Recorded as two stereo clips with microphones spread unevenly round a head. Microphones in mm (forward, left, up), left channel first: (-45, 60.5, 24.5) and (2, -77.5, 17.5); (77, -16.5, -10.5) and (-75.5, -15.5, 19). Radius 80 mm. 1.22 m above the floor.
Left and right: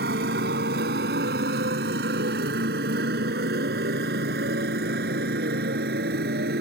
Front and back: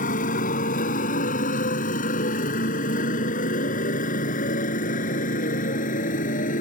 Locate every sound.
0.0 s a motorcycle: 40° right